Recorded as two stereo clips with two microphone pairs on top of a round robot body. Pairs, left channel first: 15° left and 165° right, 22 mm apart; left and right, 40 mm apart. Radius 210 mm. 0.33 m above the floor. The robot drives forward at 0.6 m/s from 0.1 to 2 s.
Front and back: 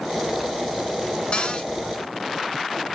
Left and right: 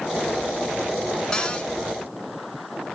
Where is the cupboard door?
15° left, 1.9 m; by 1.7 s 20° left, 1.8 m.